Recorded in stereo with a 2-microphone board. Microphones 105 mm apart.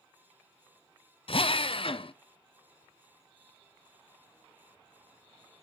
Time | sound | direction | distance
1.3 | a drill | 60° left (ahead or behind) | 0.7 m